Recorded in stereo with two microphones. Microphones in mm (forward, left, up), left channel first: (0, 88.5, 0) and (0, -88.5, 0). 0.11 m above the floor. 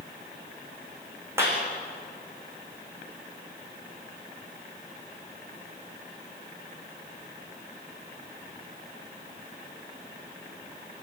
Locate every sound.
1.4 s a clap: 15° right (ahead or behind), 6.5 m